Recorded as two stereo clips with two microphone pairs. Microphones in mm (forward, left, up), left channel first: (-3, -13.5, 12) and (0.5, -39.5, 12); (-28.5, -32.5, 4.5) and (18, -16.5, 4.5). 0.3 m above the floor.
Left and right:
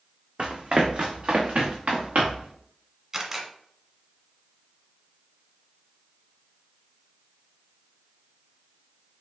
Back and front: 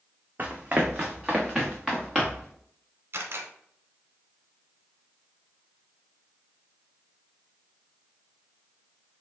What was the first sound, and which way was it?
Running footsteps, 40° right.